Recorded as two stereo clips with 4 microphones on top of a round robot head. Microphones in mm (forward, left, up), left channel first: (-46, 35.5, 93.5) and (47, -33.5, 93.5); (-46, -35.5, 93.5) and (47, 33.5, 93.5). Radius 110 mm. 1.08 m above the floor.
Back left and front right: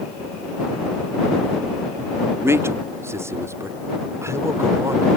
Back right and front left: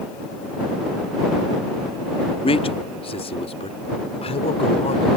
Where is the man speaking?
105° right.